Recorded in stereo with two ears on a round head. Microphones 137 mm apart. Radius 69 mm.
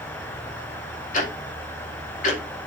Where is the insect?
55° left (ahead or behind), 4 m.